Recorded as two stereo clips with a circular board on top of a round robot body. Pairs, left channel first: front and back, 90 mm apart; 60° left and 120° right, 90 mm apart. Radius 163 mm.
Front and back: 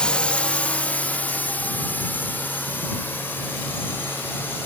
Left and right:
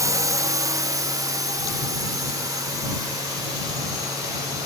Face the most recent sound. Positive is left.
turn(degrees=-65)